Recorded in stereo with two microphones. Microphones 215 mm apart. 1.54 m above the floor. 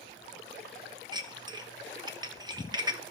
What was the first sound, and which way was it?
Dishes clattering, 20° right (ahead or behind).